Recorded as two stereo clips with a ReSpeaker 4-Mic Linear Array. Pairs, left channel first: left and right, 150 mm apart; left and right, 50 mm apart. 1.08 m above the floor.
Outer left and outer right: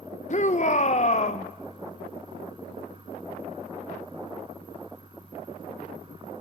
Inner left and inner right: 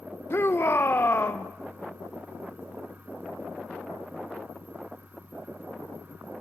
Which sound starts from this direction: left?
A shout, at 0.3 s.